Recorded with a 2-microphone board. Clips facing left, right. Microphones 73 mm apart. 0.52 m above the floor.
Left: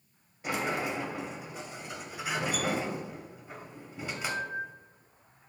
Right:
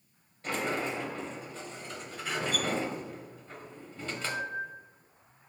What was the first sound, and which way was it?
A sliding door, 10° left (ahead or behind).